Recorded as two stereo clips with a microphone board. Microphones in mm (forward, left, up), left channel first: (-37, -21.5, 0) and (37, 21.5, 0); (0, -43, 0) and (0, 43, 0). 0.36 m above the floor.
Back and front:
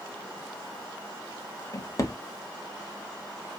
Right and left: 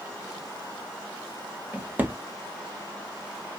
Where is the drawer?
160° left, 0.5 m.